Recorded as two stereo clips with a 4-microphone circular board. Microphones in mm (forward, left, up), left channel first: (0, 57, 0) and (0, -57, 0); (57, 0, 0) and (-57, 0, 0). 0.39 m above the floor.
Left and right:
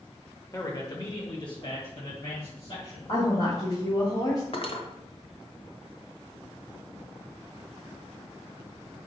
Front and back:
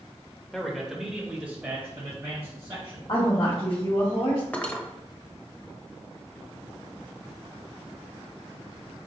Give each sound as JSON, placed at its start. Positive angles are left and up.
{"t": 0.5, "sound": "a man speaking", "azimuth_deg": 85, "distance_m": 1.1}
{"t": 3.1, "sound": "a woman speaking", "azimuth_deg": 50, "distance_m": 3.0}
{"t": 4.5, "sound": "cutlery clinking", "azimuth_deg": 75, "distance_m": 1.0}